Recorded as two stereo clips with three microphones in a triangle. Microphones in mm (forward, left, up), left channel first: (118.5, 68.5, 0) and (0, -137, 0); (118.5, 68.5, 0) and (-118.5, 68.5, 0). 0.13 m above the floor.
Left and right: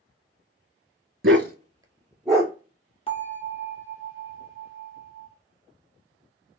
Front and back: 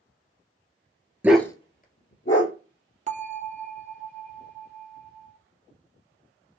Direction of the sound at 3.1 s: 120° left.